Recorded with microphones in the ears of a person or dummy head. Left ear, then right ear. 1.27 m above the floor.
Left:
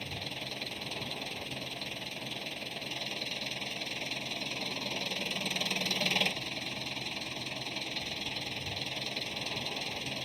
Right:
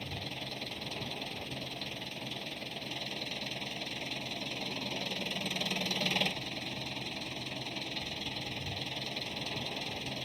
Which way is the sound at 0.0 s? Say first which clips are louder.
Left 2 dB; 10° left (ahead or behind).